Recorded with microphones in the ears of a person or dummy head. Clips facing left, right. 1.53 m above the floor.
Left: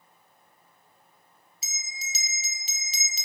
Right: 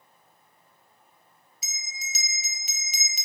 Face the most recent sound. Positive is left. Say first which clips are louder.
# even
turn(degrees=30)  # may be behind; listen again after turning